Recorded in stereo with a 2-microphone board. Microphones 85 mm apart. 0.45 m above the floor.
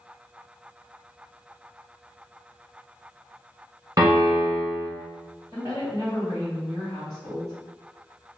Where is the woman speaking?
45° right (ahead or behind), 2.0 m.